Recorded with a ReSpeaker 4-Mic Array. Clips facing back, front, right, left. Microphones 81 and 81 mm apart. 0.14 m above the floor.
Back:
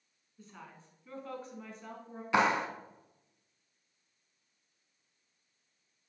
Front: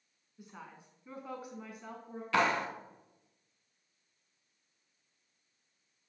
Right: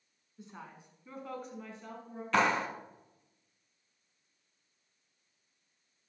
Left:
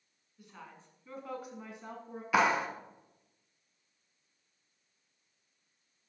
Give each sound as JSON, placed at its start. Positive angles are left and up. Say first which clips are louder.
{"t": 0.4, "sound": "a woman speaking", "louder": "front 1 dB, right 2 dB", "azimuth_deg": -55, "distance_m": 1.3}
{"t": 2.3, "sound": "a clap", "louder": "back 2 dB, left 1 dB", "azimuth_deg": 150, "distance_m": 0.9}